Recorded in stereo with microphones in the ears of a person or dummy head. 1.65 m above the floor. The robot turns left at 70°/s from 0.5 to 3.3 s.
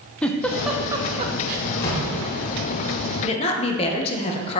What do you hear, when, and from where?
0.2 s a giggle: 5° left (ahead or behind), 0.9 m; by 1.6 s 55° right (ahead or behind), 0.9 m
1.7 s a door slam: 115° left, 3.5 m; by 2.3 s 75° left, 3.5 m
3.2 s a woman speaking: 40° left (ahead or behind), 1.0 m; by 4.6 s 35° left (ahead or behind), 1.0 m